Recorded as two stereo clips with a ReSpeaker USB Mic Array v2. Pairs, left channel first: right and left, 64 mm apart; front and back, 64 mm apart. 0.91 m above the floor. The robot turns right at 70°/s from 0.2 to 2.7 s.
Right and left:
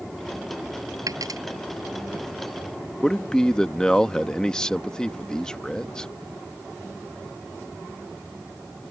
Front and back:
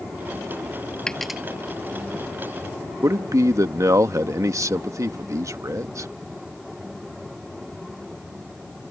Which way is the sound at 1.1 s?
75° left.